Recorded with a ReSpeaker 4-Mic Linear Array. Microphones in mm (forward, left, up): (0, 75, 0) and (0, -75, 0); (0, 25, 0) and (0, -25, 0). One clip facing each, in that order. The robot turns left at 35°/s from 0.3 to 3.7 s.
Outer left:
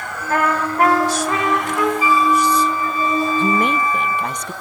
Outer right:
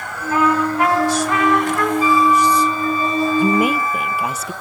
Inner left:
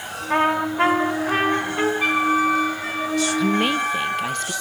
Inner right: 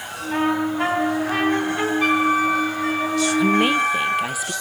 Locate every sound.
0.3 s a trumpet: 65° left, 4.5 m; by 1.9 s 10° left, 4.5 m
2.0 s a flute: 10° left, 5.5 m; by 4.3 s 50° right, 5.5 m
3.4 s a woman speaking: 15° right (ahead or behind), 0.7 m; by 4.5 s 5° right (ahead or behind), 0.7 m